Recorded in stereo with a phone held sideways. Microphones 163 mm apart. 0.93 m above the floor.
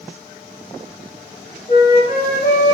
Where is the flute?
65° left (ahead or behind), 1.7 m.